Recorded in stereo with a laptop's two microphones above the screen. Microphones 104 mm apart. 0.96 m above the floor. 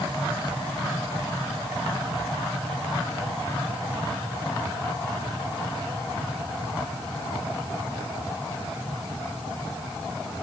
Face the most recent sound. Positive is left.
No sound to turn to.